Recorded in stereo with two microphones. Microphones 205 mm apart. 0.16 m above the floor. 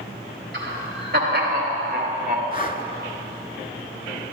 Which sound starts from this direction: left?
Breathing, at 2.5 s.